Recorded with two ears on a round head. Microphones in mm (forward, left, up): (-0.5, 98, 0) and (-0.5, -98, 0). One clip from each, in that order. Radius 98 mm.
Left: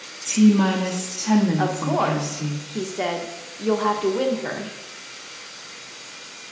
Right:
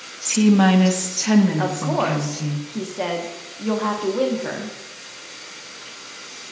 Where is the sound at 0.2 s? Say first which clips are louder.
Right 2 dB; 30° right (ahead or behind), 0.7 m; by 2.6 s 70° right (ahead or behind), 1.5 m.